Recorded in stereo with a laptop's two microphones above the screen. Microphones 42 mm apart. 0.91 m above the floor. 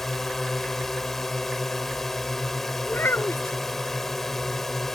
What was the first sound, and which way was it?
A drone, 10° left (ahead or behind).